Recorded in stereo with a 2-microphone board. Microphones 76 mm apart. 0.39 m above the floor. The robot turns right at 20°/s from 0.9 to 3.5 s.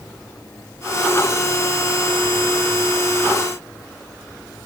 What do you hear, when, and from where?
Only background noise.